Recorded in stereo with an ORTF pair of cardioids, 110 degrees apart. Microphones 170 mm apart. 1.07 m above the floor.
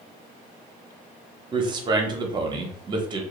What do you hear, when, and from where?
1.5 s a man speaking: 25° right, 0.7 m